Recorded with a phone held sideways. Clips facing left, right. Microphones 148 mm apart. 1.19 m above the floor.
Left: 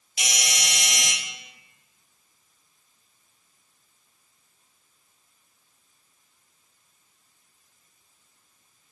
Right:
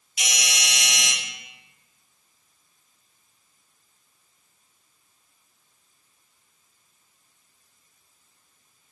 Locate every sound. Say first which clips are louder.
0.2 s a doorbell: even; 40° left (ahead or behind), 1.5 m